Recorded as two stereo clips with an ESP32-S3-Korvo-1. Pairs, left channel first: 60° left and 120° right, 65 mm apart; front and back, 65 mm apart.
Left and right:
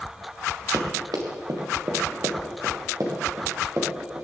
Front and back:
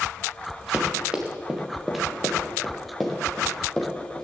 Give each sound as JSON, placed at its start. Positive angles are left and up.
{"t": 0.7, "sound": "running footsteps", "azimuth_deg": -110, "distance_m": 3.5}